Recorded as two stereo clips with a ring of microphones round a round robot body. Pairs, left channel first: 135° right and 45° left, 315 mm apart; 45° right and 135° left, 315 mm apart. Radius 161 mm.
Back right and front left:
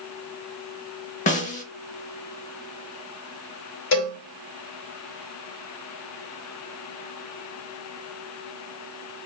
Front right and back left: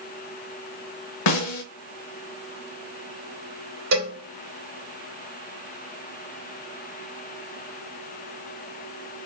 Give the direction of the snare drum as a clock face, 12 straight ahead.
2 o'clock.